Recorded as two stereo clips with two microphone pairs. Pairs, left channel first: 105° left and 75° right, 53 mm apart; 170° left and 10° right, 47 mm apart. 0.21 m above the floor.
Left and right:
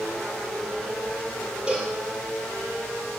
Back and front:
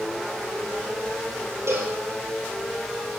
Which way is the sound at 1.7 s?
5° right.